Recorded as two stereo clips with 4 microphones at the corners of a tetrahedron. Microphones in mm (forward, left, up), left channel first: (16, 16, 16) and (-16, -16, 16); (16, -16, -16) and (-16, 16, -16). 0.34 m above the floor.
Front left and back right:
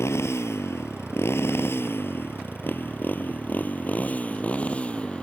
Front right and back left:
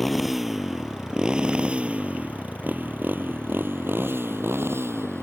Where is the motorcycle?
45° left; by 5.2 s 110° left.